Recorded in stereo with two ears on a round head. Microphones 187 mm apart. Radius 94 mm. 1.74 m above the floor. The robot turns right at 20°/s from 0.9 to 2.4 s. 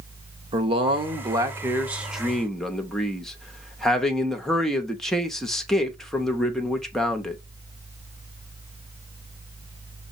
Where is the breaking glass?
I don't hear breaking glass.